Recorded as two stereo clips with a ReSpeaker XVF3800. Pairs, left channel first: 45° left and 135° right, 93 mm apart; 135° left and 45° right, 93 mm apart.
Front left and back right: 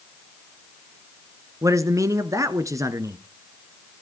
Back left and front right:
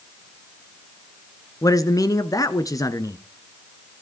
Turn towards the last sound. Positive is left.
turn(degrees=180)